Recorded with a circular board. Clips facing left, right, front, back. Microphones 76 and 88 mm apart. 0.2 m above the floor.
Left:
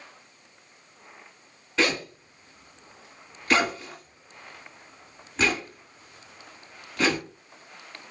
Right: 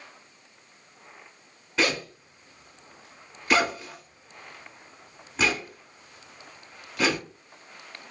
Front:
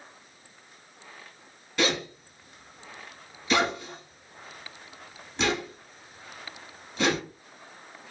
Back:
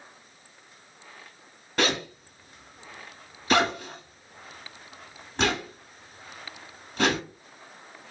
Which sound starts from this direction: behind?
A zipper, at 1.8 s.